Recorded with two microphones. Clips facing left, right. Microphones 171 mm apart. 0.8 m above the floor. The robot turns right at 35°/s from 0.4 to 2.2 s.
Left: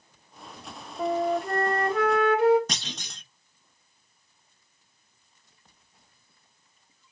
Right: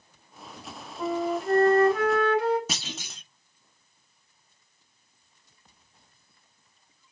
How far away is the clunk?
About 0.9 m.